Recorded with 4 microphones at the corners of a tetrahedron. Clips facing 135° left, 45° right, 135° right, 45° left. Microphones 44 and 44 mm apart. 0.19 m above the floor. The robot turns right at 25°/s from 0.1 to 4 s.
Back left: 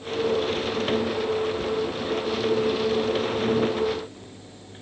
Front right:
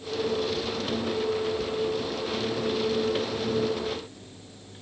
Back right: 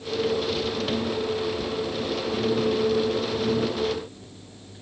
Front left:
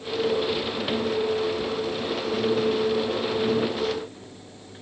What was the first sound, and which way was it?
Only background noise.